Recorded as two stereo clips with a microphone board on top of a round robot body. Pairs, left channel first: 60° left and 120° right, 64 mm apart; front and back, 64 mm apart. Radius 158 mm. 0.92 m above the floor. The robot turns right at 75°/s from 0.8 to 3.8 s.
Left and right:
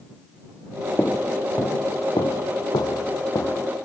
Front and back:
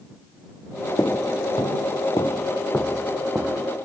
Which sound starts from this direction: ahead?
Footsteps, at 1.0 s.